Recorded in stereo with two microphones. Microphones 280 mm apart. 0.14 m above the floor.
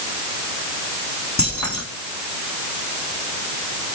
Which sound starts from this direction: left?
Keys jangling, at 1.4 s.